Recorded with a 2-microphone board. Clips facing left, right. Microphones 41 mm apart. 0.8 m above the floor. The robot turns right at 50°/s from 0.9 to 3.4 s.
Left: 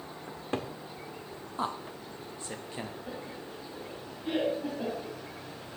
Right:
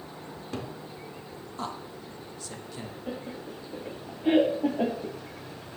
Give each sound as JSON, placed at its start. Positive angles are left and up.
{"t": 0.3, "sound": "a cupboard door", "side_deg": 30, "distance_m": 1.1}
{"t": 1.6, "sound": "a man speaking", "side_deg": 15, "distance_m": 1.0}
{"t": 3.1, "sound": "laughter", "side_deg": -30, "distance_m": 1.4}